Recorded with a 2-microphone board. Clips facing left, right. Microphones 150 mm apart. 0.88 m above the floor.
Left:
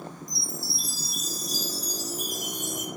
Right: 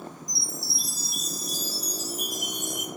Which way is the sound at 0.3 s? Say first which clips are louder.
Left 1 dB; 75° right (ahead or behind).